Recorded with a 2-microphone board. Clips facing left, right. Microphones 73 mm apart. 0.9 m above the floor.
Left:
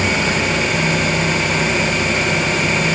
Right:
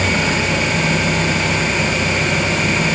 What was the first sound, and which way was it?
Only background noise.